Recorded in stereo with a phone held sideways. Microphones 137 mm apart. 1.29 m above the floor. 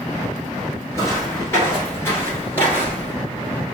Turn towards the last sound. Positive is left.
turn(degrees=10)  # may be behind; listen again after turning